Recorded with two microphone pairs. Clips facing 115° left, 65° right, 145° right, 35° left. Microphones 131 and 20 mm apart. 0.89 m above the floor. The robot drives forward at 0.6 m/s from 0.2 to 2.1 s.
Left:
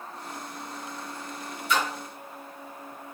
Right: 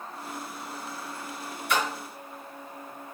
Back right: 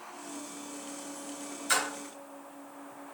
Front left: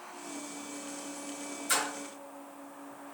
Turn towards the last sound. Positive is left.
turn(degrees=-95)